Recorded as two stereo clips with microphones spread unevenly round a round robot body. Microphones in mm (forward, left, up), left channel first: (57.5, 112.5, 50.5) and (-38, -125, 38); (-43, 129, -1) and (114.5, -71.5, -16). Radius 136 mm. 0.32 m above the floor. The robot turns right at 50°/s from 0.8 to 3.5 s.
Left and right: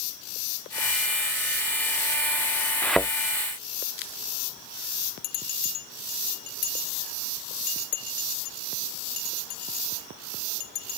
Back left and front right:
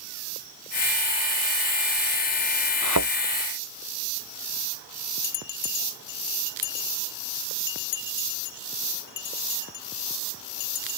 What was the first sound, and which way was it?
A thud, 150° left.